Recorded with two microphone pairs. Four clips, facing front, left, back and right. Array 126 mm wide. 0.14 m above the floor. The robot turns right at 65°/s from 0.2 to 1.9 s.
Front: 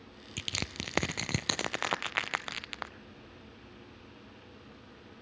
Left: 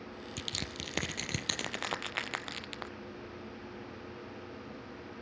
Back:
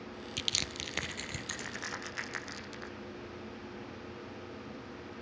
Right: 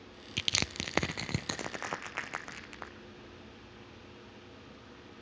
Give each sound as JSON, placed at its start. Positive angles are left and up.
{"t": 0.4, "sound": "crushing", "azimuth_deg": -85, "distance_m": 0.6}